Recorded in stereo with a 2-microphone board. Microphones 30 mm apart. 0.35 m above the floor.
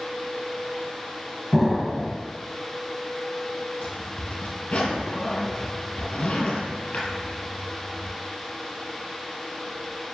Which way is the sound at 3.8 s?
50° left (ahead or behind).